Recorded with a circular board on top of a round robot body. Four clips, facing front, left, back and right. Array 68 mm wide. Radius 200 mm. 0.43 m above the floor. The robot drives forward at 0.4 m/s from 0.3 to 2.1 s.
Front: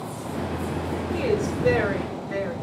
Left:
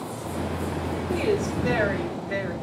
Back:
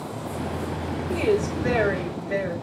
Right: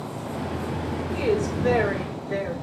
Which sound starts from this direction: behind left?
A woman speaking, at 1.1 s.